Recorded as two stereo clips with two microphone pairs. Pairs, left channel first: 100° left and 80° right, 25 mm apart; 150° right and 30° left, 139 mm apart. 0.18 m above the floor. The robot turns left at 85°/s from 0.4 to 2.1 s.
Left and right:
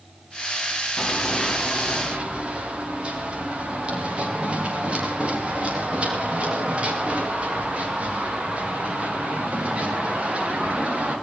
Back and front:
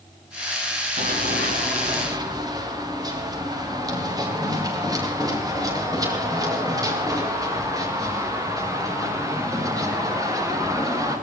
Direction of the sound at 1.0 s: 65° left.